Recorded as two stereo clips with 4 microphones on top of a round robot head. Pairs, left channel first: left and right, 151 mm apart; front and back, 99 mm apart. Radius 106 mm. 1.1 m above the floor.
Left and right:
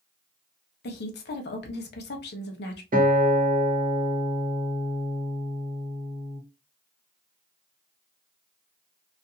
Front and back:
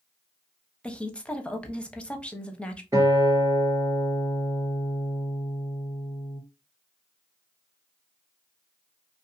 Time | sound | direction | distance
0.8 | a woman speaking | 80° left | 0.8 m
2.9 | a guitar | 115° right | 1.1 m